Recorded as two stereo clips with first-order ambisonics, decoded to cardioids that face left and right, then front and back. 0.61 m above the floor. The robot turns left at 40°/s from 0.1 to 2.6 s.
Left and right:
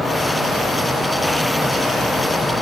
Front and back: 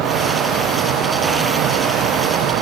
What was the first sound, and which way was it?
Only background noise.